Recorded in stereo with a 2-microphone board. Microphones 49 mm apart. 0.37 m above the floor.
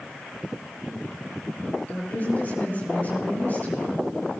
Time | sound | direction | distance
1.9 | a woman speaking | 35° left (ahead or behind) | 5.5 m